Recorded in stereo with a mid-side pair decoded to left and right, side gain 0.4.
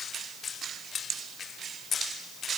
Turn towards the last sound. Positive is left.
No sound to turn to.